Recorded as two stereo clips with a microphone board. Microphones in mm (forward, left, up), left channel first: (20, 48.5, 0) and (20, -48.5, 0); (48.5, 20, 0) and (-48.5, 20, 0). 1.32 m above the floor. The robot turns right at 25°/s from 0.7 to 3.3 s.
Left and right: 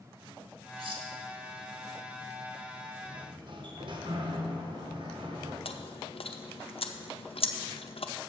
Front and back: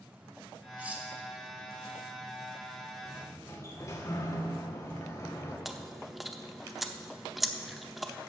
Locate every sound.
0.8 s cutlery clinking: 110° right, 1.3 m; by 1.1 s 100° right, 1.3 m
3.0 s a sliding door: 65° right, 1.3 m; by 5.5 s 55° right, 1.3 m
5.7 s chewing: 90° left, 0.7 m